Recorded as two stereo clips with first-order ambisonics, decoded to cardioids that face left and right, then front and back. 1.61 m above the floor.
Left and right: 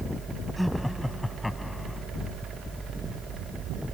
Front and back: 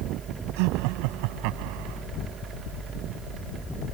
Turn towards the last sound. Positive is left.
turn(degrees=175)